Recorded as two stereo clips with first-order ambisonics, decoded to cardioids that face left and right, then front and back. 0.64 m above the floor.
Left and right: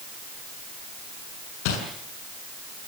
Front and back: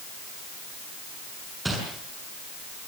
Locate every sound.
1.6 s crumpling: 95° left, 6.5 m